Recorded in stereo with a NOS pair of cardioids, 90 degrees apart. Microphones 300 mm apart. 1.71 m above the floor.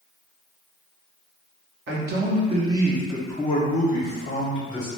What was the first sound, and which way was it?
A man speaking, 40° right.